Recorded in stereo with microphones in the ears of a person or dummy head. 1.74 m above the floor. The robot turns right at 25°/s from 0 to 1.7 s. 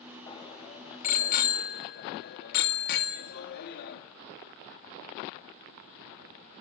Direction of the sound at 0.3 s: 30° left (ahead or behind).